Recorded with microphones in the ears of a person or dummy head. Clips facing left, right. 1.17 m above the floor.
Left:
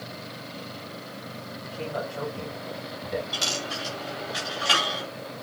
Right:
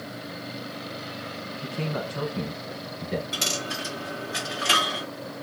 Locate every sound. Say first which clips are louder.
1.6 s a man speaking: right 1 dB; 60° right (ahead or behind), 1.3 m
3.3 s a dropped coin: right 1 dB; 25° right (ahead or behind), 1.2 m